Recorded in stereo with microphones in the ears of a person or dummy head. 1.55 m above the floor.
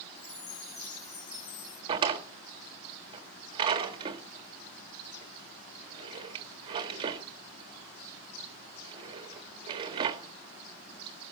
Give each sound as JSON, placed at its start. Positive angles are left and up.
{"t": 0.2, "sound": "a chime", "side_deg": 30, "distance_m": 5.5}
{"t": 1.9, "sound": "a drawer", "side_deg": -30, "distance_m": 1.6}